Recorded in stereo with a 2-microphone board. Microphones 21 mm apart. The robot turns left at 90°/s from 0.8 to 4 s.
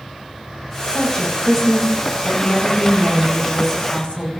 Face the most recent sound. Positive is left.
turn(degrees=130)